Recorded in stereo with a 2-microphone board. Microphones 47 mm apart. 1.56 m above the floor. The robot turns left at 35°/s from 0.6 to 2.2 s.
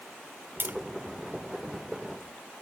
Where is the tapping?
55° right (ahead or behind); by 0.8 s 45° right (ahead or behind).